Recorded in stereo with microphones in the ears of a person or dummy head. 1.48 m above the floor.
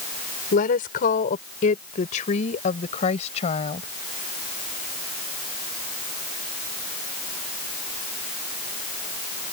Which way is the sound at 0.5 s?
45° left (ahead or behind).